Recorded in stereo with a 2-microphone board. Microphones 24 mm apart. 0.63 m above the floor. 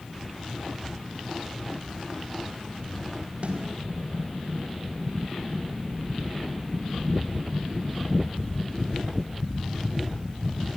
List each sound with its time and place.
3.4 s a snare drum: 55° right (ahead or behind), 4.5 m